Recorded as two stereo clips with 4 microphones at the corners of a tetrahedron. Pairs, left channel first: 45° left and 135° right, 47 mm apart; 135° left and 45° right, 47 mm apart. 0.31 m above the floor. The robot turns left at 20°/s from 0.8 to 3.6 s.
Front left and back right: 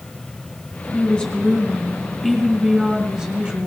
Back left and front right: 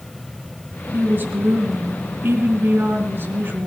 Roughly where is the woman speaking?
Ahead.